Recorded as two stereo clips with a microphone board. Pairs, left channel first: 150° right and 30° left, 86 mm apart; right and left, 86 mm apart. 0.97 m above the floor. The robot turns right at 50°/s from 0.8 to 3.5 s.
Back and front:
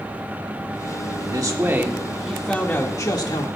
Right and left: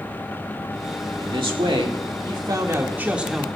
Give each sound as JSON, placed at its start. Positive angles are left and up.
{"t": 1.2, "sound": "a man speaking", "azimuth_deg": 65, "distance_m": 2.0}